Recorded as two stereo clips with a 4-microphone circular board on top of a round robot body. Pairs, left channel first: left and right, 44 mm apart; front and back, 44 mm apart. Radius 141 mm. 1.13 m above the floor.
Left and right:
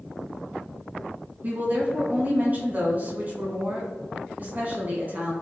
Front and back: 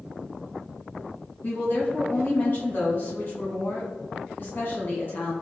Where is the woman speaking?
40° right, 2.0 m.